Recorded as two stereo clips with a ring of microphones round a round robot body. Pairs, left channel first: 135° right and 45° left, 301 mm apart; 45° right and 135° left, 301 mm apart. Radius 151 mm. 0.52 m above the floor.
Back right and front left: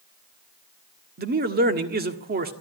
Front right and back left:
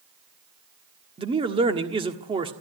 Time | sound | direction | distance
1.2 | a man speaking | 75° left | 1.5 m